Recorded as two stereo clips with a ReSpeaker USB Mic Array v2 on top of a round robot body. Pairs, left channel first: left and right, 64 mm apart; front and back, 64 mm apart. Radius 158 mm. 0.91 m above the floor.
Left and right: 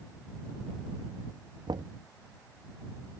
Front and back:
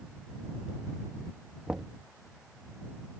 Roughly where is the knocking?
Right.